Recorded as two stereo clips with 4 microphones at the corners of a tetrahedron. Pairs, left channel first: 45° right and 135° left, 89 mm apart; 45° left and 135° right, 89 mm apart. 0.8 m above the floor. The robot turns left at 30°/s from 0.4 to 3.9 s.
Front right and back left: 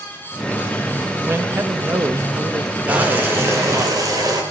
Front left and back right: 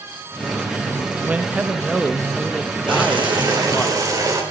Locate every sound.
1.3 s a man speaking: 170° left, 0.8 m; by 3.9 s 90° left, 0.8 m
2.9 s boiling: 150° right, 4 m; by 4.4 s straight behind, 4 m